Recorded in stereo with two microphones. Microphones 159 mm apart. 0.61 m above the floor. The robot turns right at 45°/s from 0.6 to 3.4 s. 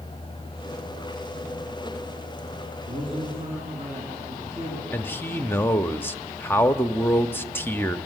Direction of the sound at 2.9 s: 20° right (ahead or behind).